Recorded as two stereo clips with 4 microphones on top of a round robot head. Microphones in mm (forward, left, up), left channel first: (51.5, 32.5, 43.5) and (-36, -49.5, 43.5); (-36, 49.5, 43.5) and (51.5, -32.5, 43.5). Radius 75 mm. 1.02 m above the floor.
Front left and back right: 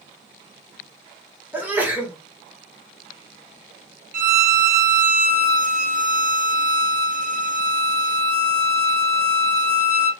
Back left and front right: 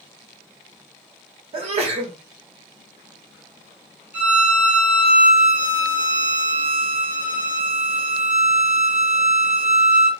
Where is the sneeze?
60° right, 1.4 m.